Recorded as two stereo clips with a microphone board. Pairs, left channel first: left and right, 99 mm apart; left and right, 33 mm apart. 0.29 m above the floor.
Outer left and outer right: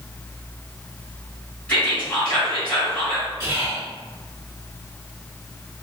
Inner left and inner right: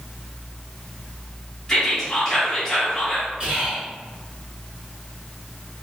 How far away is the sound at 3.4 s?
About 1.8 m.